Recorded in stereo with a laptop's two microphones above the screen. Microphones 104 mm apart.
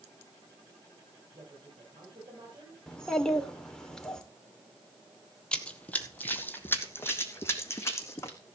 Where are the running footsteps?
10° left (ahead or behind), 1.5 m; by 8.4 s 25° left (ahead or behind), 3.5 m.